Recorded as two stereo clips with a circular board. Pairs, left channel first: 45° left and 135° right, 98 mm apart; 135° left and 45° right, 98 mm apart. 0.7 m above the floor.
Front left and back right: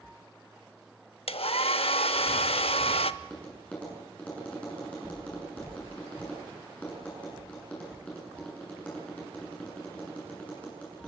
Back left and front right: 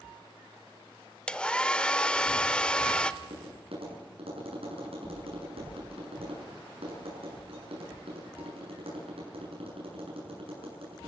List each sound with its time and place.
1.3 s a hair dryer: 55° left, 0.7 m
3.2 s tapping: 35° right, 8 m